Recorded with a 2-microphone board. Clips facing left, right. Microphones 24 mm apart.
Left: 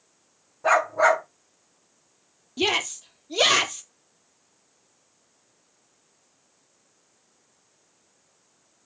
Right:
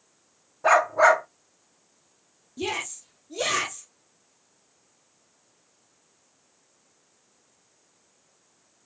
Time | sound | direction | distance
0.6 | a dog barking | 20° right (ahead or behind) | 3 m
2.6 | a shout | 55° left (ahead or behind) | 2.5 m